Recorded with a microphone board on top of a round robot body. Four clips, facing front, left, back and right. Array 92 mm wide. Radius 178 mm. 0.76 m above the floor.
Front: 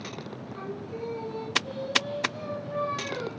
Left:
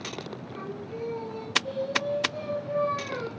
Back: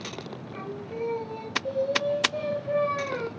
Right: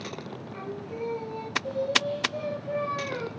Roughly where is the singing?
Behind.